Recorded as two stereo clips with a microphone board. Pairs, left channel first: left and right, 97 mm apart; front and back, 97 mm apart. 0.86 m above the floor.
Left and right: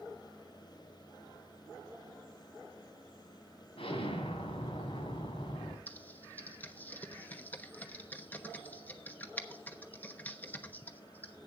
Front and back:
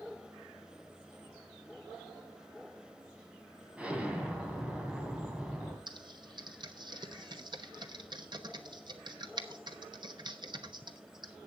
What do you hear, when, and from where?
3.8 s an explosion: 100° left, 2 m
5.9 s typing on a keyboard: 160° left, 1.0 m